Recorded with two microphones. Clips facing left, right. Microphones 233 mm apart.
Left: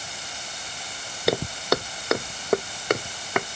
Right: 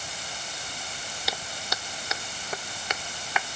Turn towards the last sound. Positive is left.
turn(degrees=50)  # may be behind; listen again after turning